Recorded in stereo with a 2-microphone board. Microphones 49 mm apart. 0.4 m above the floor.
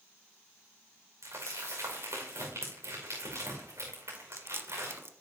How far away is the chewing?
About 1.0 m.